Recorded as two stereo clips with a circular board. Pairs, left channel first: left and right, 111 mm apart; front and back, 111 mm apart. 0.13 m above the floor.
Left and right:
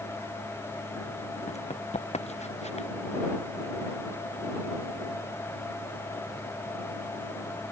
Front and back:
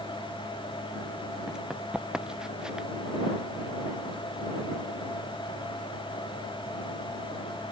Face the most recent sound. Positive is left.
turn(degrees=95)